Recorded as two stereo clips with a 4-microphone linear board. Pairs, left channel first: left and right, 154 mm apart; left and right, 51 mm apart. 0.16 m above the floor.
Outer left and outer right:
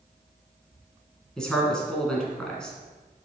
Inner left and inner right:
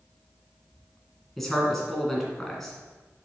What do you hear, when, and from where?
1.4 s a man speaking: 5° left (ahead or behind), 1.7 m